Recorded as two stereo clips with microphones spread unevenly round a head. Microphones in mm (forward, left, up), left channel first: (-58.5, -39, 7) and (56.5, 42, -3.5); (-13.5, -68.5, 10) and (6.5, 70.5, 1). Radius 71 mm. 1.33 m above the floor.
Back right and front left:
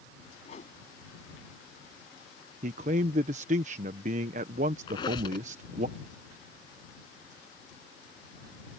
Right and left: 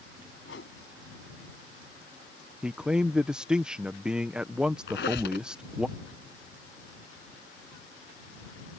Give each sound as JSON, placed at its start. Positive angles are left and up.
{"t": 0.5, "sound": "a whoosh", "azimuth_deg": -100}
{"t": 2.6, "sound": "a man speaking", "azimuth_deg": 0}
{"t": 4.9, "sound": "a squeak", "azimuth_deg": -85}